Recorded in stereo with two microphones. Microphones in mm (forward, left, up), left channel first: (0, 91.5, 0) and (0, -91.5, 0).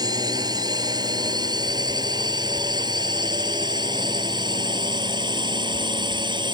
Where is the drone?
20° right (ahead or behind); by 6.5 s 25° right (ahead or behind).